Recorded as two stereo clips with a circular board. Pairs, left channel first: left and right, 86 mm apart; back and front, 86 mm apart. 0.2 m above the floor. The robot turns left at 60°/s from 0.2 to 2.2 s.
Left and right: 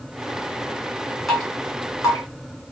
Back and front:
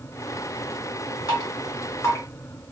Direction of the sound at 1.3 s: Straight behind.